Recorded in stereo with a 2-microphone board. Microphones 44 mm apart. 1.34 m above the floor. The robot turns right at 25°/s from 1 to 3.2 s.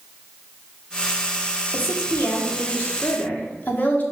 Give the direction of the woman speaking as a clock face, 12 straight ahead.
8 o'clock.